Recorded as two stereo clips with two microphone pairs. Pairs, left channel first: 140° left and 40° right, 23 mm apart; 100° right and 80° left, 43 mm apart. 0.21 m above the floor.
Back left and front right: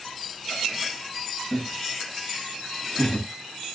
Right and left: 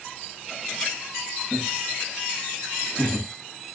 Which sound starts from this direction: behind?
Laughter, at 1.5 s.